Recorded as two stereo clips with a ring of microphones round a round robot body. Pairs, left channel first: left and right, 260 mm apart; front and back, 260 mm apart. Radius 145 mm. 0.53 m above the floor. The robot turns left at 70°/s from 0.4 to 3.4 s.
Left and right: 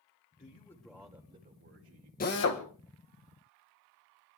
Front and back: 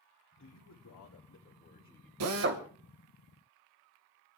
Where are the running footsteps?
I don't hear running footsteps.